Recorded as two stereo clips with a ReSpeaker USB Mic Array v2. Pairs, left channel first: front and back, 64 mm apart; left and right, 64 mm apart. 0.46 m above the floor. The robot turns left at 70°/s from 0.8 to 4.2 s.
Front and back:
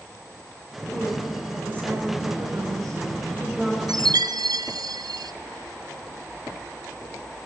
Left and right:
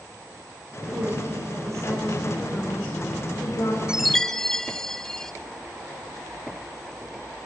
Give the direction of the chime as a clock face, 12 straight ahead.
6 o'clock.